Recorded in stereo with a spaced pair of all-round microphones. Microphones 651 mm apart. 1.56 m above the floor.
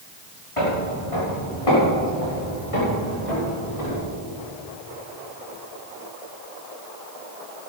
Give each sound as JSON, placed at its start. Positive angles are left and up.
{"t": 0.6, "sound": "footsteps", "side_deg": 50, "distance_m": 5.5}